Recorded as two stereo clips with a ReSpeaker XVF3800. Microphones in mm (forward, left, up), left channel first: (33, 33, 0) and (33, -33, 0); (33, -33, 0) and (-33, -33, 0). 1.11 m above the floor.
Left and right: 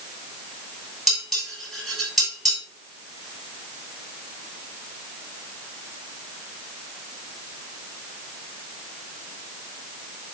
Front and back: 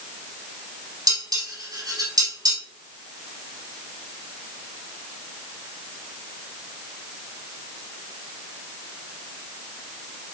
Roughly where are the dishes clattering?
Behind.